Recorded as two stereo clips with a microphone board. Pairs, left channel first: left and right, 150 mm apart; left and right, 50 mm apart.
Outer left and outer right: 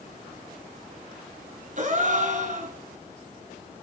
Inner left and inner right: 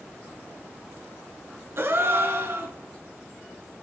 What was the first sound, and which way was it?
A gasp, 55° right (ahead or behind).